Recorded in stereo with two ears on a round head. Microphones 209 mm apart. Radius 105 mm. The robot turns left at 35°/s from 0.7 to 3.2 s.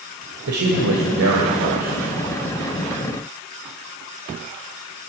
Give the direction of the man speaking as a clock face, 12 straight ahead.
3 o'clock.